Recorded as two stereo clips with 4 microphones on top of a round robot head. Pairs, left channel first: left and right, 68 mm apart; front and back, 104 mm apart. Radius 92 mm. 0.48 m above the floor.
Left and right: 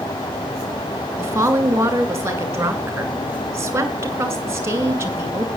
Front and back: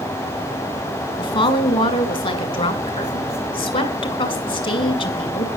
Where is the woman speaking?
35° right, 2.5 m.